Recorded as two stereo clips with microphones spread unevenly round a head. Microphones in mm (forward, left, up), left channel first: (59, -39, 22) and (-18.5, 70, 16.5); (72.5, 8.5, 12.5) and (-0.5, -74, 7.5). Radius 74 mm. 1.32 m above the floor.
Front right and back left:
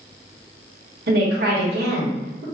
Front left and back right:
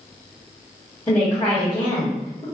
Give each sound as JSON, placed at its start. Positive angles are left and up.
{"t": 1.1, "sound": "a woman speaking", "azimuth_deg": 125, "distance_m": 1.1}